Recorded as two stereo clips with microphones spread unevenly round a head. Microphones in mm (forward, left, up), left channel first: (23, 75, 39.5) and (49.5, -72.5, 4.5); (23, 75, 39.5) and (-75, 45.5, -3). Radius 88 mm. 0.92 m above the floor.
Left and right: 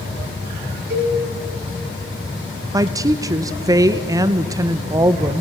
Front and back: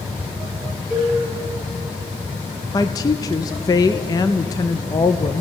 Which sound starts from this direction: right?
A cowbell, at 0.9 s.